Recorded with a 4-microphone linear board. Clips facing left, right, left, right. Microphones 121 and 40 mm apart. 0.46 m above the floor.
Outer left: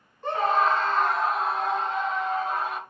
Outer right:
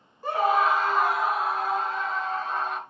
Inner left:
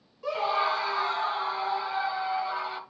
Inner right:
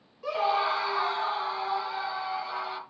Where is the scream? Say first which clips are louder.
Outer right 1 dB, even; 10° right (ahead or behind), 1.3 m; by 2.8 s centre (ahead or behind), 2.5 m.